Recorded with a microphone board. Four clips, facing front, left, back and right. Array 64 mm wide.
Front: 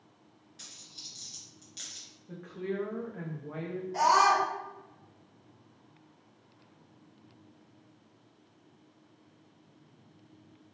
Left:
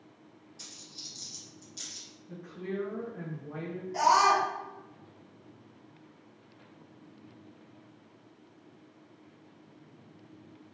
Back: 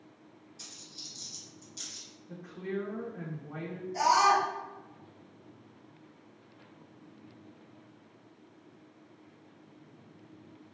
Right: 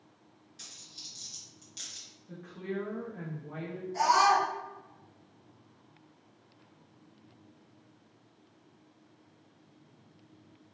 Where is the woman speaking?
10° right, 1.3 m.